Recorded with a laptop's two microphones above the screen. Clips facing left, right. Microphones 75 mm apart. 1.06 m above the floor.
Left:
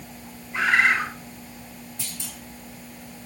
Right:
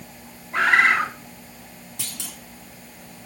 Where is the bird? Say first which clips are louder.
Right 3 dB; 65° right (ahead or behind), 2.5 m.